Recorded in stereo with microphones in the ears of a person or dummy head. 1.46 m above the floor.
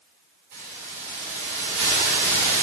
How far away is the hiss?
About 1.8 m.